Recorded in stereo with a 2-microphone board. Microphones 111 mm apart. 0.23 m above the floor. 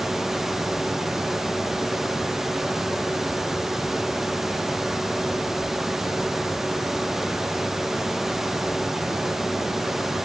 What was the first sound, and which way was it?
Only background noise.